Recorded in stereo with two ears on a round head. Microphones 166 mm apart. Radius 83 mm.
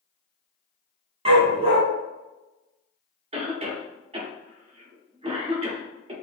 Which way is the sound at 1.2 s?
35° right (ahead or behind).